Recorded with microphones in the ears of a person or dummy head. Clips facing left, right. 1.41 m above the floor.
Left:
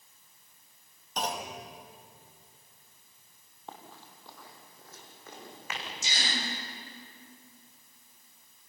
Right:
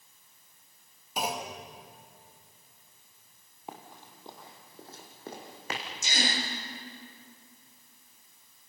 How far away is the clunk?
About 2 m.